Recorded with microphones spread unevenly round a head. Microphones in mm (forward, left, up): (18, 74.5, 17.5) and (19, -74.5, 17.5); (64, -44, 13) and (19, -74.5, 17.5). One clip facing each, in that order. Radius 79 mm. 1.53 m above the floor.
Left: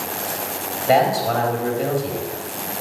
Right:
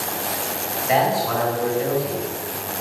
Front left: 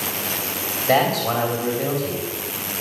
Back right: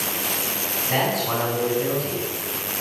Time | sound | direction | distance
0.9 | a man speaking | 40° left | 4.5 m